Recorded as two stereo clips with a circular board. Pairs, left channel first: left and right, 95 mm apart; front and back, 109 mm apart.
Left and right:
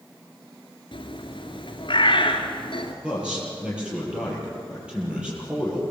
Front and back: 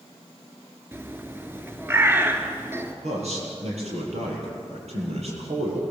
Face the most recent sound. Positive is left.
turn(degrees=-170)